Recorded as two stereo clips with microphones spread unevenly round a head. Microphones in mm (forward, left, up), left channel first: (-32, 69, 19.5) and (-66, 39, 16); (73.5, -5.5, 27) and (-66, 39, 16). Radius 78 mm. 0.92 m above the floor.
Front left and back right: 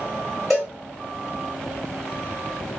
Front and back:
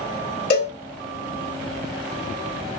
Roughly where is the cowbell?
Ahead right.